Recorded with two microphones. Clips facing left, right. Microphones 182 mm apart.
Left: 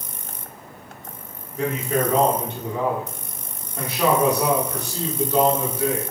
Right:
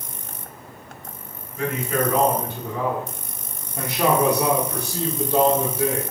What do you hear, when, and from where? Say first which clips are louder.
1.6 s a man speaking: left 1 dB; 35° left (ahead or behind), 1.4 m; by 6.0 s 45° right (ahead or behind), 1.7 m